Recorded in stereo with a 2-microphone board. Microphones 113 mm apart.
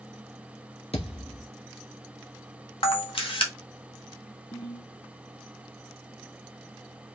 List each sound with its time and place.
0.9 s a thud: 60° left (ahead or behind), 1.8 m
2.8 s a camera shutter: 50° left (ahead or behind), 1.4 m
4.5 s a ringtone: 60° left (ahead or behind), 2.5 m